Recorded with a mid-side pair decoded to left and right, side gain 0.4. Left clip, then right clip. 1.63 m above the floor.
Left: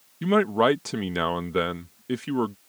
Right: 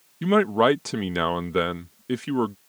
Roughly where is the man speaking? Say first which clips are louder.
Right 1 dB; ahead.